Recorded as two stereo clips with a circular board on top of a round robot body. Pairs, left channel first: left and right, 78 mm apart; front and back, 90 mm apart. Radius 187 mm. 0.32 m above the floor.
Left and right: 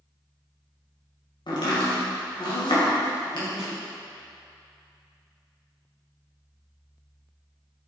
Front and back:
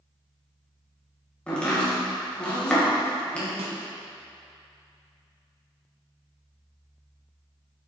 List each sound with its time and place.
1.5 s chopping: 75° left, 2.5 m
3.6 s a snare drum: 170° right, 1.1 m